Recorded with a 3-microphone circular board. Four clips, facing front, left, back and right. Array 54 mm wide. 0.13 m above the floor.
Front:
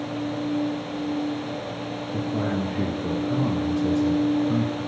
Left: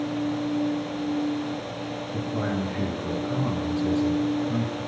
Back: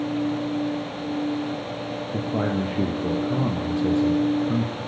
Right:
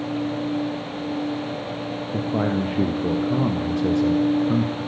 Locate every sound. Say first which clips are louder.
2.1 s a man speaking: right 6 dB, back 1 dB; 115° right, 4.5 m; by 4.8 s 100° right, 5 m